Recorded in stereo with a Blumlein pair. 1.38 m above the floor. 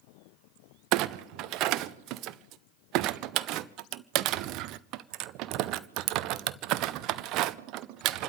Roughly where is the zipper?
No zipper in this recording.